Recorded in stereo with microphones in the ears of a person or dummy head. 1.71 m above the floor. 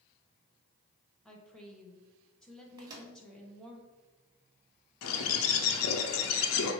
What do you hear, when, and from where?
1.2 s a woman speaking: centre (ahead or behind), 1.5 m
2.8 s a microwave: 25° right (ahead or behind), 1.3 m
5.0 s a bird: 85° left, 1.0 m